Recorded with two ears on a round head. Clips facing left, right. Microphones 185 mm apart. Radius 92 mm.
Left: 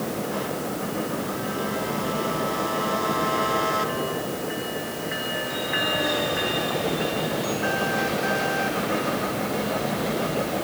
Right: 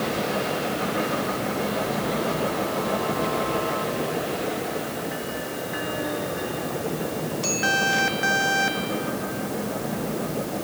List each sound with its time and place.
Only background noise.